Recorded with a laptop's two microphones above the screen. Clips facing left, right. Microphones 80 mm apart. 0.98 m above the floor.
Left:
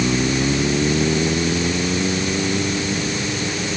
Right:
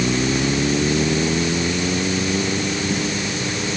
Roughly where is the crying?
I don't hear crying.